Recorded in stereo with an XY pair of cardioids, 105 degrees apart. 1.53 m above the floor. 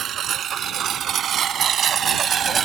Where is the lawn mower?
65° right; by 2.6 s 50° right.